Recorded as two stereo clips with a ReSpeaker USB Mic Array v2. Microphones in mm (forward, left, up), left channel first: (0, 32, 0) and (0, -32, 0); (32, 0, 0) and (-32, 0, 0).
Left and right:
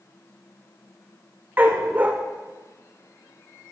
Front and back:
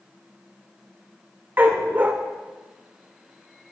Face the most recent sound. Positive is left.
turn(degrees=-140)